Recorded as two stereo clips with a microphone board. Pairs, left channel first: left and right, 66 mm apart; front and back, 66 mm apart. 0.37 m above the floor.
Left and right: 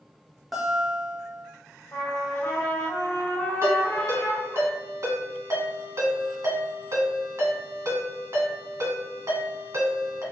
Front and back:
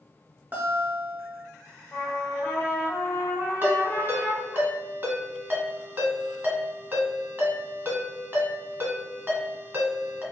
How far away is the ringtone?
About 1.5 m.